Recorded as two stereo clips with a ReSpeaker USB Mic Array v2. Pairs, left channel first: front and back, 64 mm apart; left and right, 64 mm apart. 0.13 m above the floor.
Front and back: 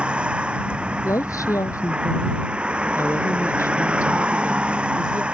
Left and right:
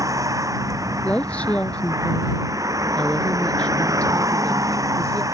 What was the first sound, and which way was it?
A vehicle, 110° right.